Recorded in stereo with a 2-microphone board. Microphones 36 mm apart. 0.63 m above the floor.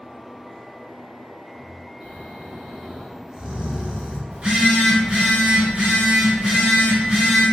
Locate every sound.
2.0 s snoring: 25° right (ahead or behind), 0.7 m
4.3 s a phone buzzing: 35° right (ahead or behind), 1.1 m